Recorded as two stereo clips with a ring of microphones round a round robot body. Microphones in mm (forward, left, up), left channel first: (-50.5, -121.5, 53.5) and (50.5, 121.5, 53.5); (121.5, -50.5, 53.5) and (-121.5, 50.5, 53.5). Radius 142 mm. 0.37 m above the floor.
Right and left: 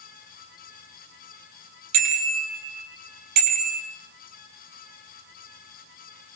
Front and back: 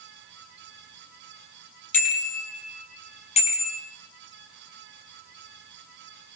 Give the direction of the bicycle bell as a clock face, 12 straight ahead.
11 o'clock.